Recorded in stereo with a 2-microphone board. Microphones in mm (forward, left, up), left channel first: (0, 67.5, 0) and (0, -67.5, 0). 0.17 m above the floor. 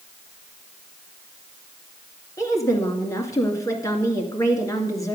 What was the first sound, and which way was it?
A woman speaking, 25° left (ahead or behind).